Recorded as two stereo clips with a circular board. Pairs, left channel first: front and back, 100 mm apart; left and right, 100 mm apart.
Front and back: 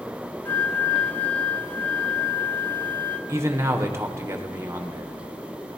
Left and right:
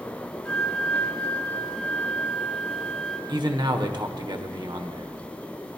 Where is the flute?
35° left, 1.0 m.